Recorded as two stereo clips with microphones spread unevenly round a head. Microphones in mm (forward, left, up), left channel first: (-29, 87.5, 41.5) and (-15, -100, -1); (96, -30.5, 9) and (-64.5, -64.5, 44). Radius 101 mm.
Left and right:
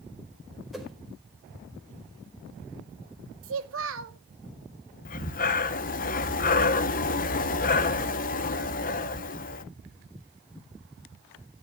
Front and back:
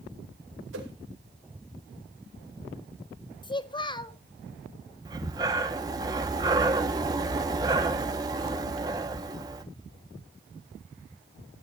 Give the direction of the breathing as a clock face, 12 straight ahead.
8 o'clock.